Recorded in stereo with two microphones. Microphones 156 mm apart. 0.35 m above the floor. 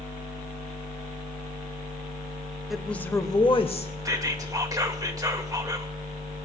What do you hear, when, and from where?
2.7 s a woman speaking: centre (ahead or behind), 0.9 m; by 3.9 s 45° left (ahead or behind), 1.1 m
4.0 s whispering: 25° right (ahead or behind), 1.4 m